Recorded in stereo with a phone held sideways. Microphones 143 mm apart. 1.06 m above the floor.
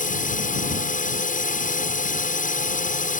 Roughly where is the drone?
Left.